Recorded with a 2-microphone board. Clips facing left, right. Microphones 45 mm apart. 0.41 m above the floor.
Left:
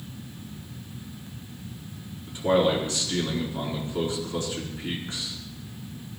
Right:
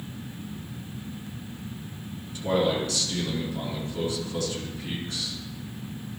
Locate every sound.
2.3 s a man speaking: 30° left (ahead or behind), 4.5 m